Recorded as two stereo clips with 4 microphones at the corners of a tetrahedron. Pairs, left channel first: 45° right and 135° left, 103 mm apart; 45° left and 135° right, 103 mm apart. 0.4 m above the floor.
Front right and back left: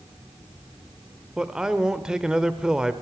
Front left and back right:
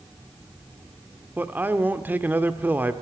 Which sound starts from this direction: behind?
A man speaking, at 1.4 s.